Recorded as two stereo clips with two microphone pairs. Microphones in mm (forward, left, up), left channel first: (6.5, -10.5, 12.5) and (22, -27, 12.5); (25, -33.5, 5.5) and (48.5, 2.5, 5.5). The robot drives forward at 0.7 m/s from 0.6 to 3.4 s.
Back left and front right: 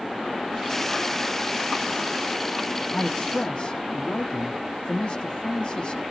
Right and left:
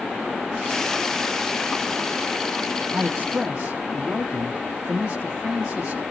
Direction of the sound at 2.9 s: 105° left.